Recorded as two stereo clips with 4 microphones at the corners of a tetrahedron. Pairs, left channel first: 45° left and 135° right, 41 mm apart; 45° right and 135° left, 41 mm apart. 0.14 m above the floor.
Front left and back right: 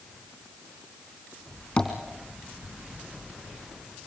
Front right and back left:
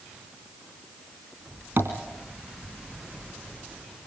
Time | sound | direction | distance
1.8 | tapping | 110° left | 3 m